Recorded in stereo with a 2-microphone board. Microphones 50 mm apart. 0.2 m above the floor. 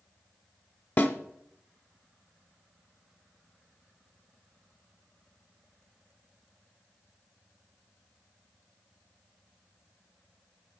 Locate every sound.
1.0 s a snare drum: 45° left (ahead or behind), 1.0 m